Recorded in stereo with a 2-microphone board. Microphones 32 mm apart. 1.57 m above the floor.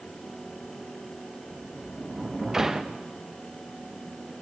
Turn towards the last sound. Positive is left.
turn(degrees=-10)  # may be behind; listen again after turning